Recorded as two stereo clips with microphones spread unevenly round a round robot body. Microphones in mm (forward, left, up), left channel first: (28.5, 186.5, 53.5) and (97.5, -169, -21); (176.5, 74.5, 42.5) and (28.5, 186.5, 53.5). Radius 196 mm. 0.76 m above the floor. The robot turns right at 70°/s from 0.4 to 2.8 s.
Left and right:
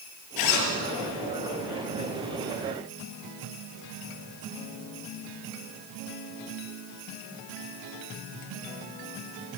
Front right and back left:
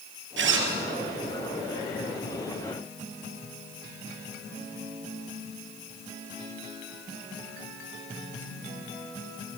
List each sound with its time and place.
0.4 s a zipper: 135° left, 3 m; by 0.7 s 160° left, 3 m